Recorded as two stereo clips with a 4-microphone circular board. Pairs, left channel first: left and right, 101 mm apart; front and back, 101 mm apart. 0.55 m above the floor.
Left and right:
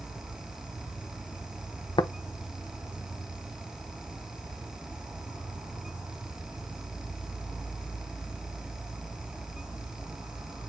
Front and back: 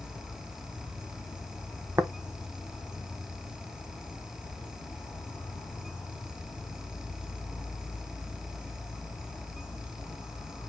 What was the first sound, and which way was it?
An insect, 20° right.